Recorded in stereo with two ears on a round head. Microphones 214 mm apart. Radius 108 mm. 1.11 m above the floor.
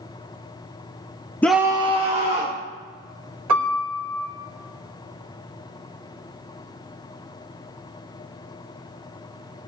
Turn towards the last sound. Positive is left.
turn(degrees=-70)  # may be behind; listen again after turning